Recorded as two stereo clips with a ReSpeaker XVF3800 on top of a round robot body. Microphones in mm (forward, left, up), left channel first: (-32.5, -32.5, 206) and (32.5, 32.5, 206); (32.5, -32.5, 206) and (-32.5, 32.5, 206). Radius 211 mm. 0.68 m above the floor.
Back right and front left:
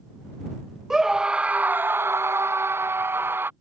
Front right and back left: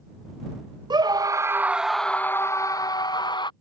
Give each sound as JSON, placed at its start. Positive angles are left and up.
{"t": 0.9, "sound": "a scream", "azimuth_deg": 130}